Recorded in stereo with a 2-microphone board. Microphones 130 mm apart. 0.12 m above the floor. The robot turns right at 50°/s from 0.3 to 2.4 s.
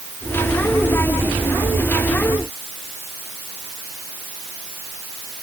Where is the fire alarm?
No fire alarm in this recording.